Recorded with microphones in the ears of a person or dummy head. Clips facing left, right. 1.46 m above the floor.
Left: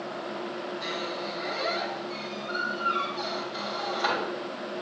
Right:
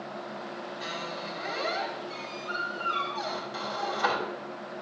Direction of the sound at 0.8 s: 50° right (ahead or behind).